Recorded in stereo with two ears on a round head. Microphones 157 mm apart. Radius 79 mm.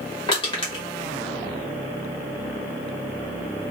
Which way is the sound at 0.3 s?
30° left (ahead or behind).